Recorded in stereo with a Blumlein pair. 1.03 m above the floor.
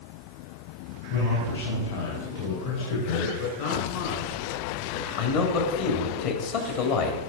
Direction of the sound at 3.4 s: 50° left.